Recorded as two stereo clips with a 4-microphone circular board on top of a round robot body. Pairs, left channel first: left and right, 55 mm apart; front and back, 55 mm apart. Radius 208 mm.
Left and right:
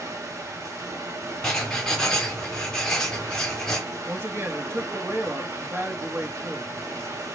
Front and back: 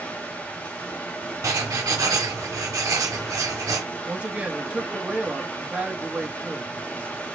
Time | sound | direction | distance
0.0 | running water | 60° right | 1.6 m
1.4 | writing | 170° left | 1.0 m
4.0 | a man speaking | 120° right | 1.8 m